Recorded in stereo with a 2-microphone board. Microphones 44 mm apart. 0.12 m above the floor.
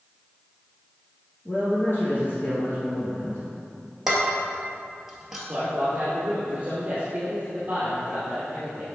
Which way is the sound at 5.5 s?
30° right (ahead or behind).